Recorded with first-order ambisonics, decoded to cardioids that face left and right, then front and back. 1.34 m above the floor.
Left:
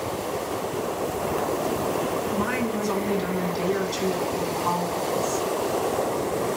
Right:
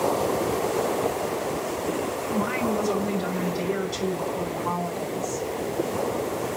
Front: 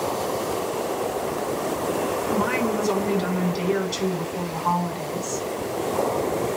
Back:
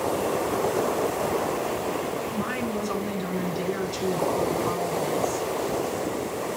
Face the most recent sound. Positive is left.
turn(degrees=10)